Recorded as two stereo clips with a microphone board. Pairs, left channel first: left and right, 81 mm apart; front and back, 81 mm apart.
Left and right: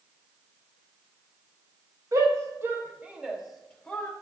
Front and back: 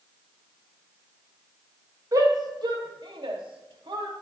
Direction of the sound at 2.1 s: 135° right.